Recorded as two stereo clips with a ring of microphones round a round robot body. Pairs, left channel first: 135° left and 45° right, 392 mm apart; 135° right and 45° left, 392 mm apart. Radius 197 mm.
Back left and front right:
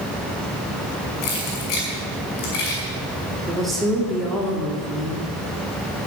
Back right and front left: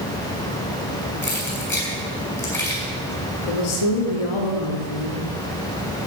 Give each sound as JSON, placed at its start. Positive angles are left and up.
{"t": 1.2, "sound": "keys jangling", "azimuth_deg": 140, "distance_m": 6.0}
{"t": 3.5, "sound": "a woman speaking", "azimuth_deg": -135, "distance_m": 2.5}